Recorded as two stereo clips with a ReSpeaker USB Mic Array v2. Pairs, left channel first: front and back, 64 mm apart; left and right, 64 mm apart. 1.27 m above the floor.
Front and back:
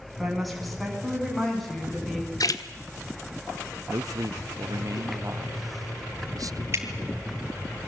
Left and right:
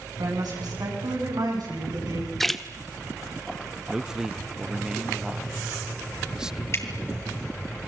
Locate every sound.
0.2 s a woman speaking: 90° right, 9 m; by 2.3 s 85° right, 10 m
2.4 s a splash: 5° left, 1.4 m
3.9 s a man speaking: 170° right, 0.7 m
6.7 s dripping: 135° left, 3 m